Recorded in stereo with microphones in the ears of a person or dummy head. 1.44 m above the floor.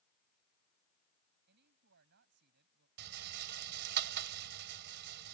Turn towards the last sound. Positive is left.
turn(degrees=-60)  # may be behind; listen again after turning